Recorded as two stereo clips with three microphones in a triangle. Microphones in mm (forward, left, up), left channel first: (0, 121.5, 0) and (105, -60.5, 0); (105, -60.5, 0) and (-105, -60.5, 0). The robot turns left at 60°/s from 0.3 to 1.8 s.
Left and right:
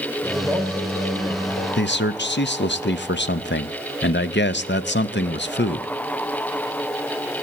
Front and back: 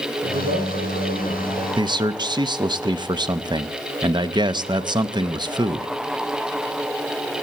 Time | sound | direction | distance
0.2 | a man speaking | 145° right | 3 m
1.8 | a man speaking | 120° left | 0.6 m